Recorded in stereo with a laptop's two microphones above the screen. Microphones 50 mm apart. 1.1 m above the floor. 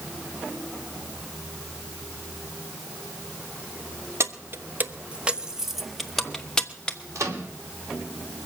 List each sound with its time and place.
4.2 s keys jangling: 55° right (ahead or behind), 0.9 m; by 7.0 s 15° left (ahead or behind), 1.5 m
7.2 s a microwave: 75° right (ahead or behind), 2 m